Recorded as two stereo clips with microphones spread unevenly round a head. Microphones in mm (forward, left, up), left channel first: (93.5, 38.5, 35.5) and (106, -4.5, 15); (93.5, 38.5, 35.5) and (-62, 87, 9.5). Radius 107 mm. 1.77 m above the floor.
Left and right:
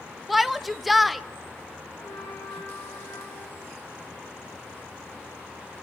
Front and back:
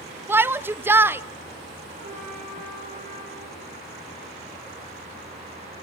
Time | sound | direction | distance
0.3 | a shout | 80° left | 0.7 m
2.0 | a trumpet | 120° left | 6 m